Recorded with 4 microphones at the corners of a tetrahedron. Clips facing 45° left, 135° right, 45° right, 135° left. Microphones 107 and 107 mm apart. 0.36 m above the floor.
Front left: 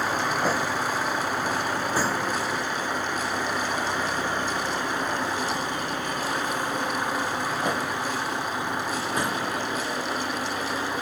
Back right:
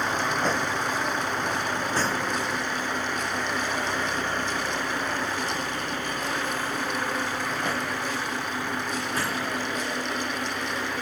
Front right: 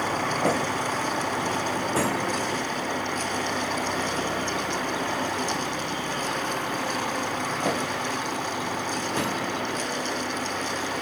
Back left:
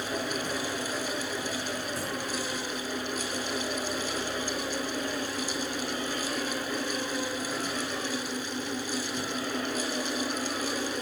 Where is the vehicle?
40° right; by 11.0 s 25° right.